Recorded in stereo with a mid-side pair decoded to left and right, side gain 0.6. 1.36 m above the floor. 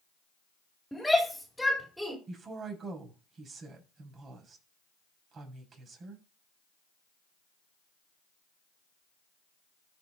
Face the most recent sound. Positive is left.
turn(degrees=-40)